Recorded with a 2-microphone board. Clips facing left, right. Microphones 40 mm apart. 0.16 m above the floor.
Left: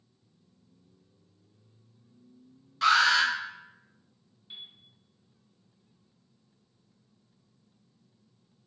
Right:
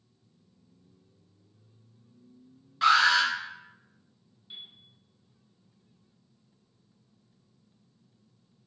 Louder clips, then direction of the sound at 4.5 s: Even; 10° left (ahead or behind).